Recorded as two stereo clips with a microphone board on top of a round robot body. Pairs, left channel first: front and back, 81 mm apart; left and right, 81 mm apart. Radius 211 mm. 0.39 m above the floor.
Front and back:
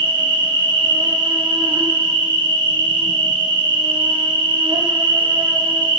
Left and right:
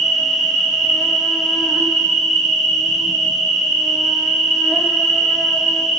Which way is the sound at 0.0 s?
Straight behind.